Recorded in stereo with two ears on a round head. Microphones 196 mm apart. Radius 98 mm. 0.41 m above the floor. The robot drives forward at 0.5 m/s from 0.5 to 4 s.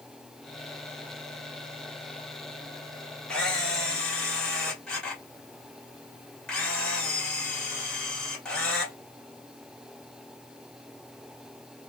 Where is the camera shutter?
5° left (ahead or behind), 1.5 m.